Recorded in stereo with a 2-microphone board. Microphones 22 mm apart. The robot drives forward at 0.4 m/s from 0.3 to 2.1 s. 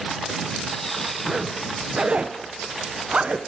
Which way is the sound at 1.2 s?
30° right (ahead or behind).